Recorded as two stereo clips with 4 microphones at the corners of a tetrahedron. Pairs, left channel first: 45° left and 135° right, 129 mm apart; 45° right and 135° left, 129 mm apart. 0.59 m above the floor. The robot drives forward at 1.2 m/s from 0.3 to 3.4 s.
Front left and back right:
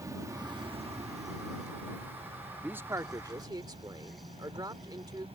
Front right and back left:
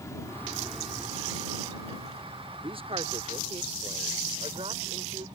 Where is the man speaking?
150° left; by 5.3 s 170° left.